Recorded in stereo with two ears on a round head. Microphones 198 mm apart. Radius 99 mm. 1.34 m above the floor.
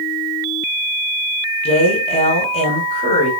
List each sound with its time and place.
1.6 s a woman speaking: 30° left (ahead or behind), 5.5 m